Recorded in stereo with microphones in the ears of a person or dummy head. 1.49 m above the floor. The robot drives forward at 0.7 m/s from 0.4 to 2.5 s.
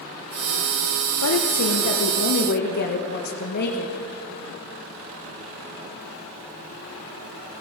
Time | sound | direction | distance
1.2 | a woman speaking | 90° left | 1.4 m